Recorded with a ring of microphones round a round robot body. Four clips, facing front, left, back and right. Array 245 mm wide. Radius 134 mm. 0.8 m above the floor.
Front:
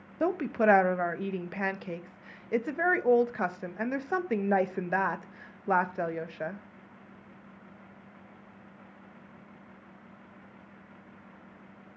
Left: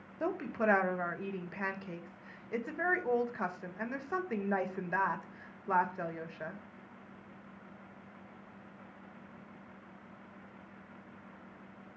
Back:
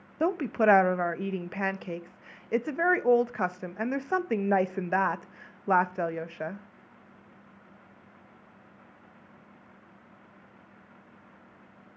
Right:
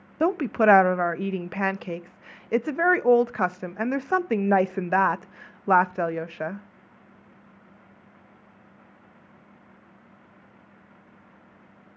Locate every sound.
0.2 s a woman speaking: 95° right, 0.5 m